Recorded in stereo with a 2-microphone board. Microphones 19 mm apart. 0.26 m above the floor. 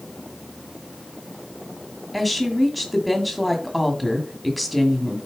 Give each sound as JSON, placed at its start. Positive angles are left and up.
{"t": 2.1, "sound": "a woman speaking", "side_deg": 0, "distance_m": 1.9}